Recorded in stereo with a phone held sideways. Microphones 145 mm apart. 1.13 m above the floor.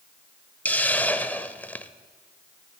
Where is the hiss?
10° left (ahead or behind), 1.1 m.